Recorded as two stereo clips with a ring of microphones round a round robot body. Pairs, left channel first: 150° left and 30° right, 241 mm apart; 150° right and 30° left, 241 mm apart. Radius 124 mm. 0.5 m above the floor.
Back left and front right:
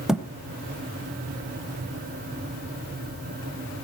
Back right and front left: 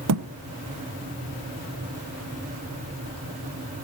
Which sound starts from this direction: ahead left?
A thud, at 0.1 s.